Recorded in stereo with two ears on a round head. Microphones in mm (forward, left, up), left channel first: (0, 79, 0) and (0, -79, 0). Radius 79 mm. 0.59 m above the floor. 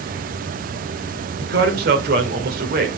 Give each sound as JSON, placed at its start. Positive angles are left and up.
{"t": 1.4, "sound": "a man speaking", "side_deg": -65, "distance_m": 2.5}